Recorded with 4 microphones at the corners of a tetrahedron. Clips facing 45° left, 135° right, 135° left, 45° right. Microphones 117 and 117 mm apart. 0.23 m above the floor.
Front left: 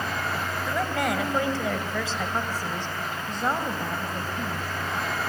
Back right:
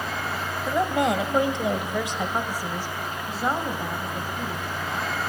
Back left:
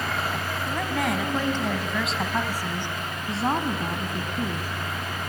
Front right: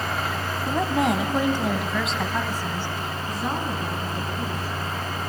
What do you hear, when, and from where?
0.7 s a woman speaking: 85° right, 1.6 m; by 4.7 s 130° left, 2.0 m